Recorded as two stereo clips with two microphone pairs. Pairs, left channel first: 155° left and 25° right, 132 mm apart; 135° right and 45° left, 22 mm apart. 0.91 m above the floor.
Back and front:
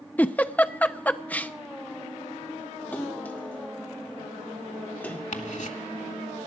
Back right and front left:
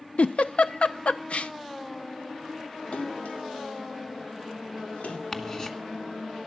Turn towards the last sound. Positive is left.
turn(degrees=165)